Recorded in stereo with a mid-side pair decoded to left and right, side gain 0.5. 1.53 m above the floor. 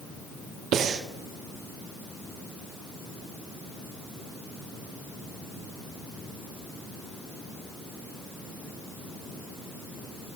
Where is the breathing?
60° right, 1.2 m.